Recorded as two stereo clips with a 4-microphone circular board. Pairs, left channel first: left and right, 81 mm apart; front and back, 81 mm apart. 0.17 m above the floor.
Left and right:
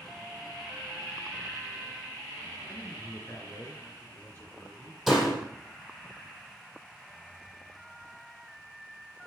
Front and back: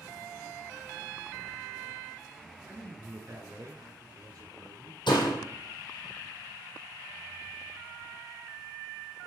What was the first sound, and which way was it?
A man speaking, 135° left.